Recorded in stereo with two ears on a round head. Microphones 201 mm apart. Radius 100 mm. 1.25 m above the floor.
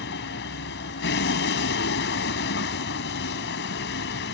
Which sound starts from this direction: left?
A vehicle, at 0.0 s.